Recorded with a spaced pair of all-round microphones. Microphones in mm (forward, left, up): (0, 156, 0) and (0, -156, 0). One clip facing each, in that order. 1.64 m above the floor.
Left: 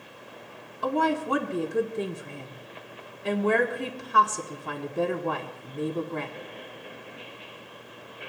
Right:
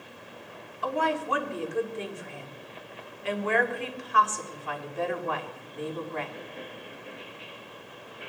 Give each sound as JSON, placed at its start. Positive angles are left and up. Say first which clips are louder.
{"t": 0.8, "sound": "a woman speaking", "louder": "left 4 dB", "side_deg": 50, "distance_m": 1.2}